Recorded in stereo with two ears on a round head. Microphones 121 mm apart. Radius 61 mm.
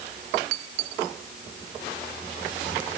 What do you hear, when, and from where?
Only background noise.